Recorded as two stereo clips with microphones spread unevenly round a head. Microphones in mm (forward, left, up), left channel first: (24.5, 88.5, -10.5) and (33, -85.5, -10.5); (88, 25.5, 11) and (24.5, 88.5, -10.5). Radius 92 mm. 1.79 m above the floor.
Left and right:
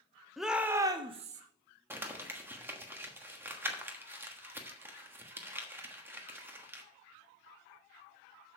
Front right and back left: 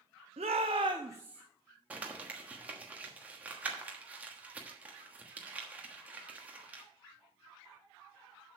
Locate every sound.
0.4 s a shout: 175° right, 0.9 m; by 1.4 s 135° right, 0.8 m
1.9 s crumpling: 140° right, 1.2 m